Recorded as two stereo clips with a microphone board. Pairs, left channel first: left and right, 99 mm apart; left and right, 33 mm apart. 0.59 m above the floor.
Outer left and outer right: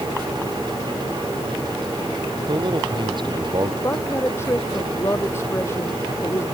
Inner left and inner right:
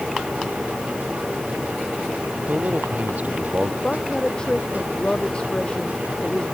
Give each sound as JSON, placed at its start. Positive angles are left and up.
{"t": 2.5, "sound": "a man speaking", "side_deg": -55}
{"t": 3.8, "sound": "a woman speaking", "side_deg": 25}